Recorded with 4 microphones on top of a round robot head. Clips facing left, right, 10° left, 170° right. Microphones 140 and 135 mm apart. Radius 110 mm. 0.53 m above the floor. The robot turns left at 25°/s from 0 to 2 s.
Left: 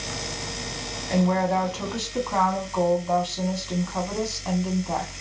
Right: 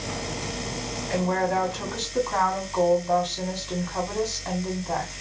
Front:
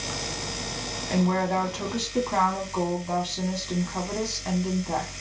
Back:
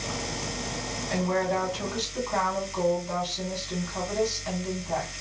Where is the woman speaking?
35° left, 1.4 m; by 5.2 s 10° left, 1.4 m.